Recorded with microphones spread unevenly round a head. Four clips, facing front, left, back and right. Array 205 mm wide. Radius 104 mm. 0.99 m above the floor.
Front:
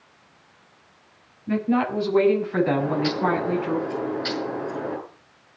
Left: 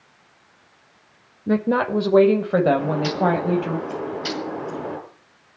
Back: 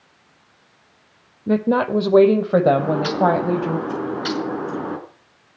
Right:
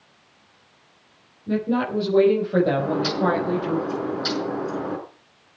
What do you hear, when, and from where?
1.5 s a woman speaking: 150° left, 3 m; by 3.8 s 170° left, 5.5 m
2.8 s a bird: straight behind, 6 m